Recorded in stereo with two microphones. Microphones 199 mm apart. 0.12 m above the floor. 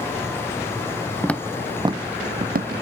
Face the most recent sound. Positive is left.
turn(degrees=-55)  # may be behind; listen again after turning